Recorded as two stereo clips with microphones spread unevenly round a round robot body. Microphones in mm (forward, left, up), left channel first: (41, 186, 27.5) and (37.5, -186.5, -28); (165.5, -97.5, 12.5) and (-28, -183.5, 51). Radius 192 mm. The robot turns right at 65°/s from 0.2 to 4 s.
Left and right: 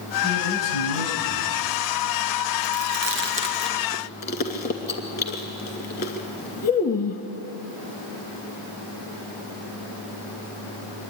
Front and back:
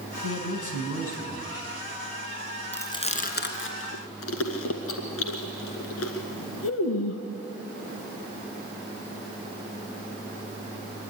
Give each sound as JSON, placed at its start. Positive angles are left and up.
{"t": 0.2, "sound": "a man speaking", "azimuth_deg": 25, "distance_m": 4.0}
{"t": 2.7, "sound": "chewing", "azimuth_deg": -60, "distance_m": 2.0}